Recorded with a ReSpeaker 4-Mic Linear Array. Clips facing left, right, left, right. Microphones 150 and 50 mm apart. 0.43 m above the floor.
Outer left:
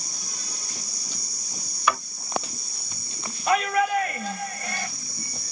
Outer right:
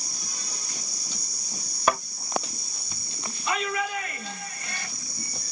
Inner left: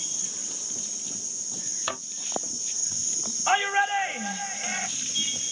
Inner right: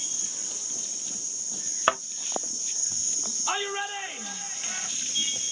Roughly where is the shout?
Left.